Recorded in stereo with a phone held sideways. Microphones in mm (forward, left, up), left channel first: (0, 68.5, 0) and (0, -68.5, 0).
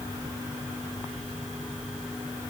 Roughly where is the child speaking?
I don't hear a child speaking.